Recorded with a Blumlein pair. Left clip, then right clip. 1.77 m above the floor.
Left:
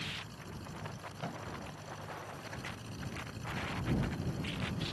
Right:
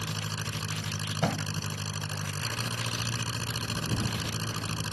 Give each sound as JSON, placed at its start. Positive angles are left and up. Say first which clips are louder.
{"t": 0.0, "sound": "an engine running", "louder": "right 7 dB", "azimuth_deg": -50}
{"t": 1.2, "sound": "a thud", "louder": "right 11 dB", "azimuth_deg": -35}